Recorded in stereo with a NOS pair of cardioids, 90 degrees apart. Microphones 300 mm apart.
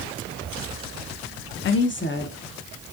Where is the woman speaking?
40° left, 0.6 m.